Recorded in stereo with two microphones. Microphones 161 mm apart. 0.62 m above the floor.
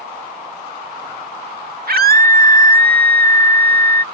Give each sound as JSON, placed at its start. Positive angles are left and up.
{"t": 1.9, "sound": "a scream", "side_deg": -70}